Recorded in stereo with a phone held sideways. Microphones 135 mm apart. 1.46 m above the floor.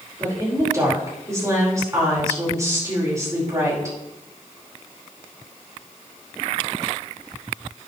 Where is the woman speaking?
25° right (ahead or behind), 5 m.